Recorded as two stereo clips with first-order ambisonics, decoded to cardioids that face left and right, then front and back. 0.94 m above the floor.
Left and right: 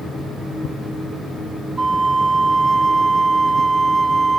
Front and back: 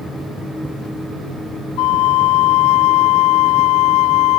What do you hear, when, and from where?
1.8 s a flute: 15° right